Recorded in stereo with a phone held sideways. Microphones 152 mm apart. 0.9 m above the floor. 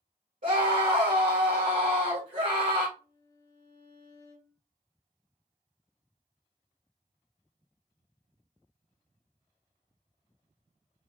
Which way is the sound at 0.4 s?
60° right (ahead or behind).